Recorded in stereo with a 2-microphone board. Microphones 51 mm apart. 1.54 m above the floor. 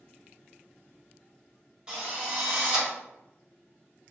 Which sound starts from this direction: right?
A drill, at 1.9 s.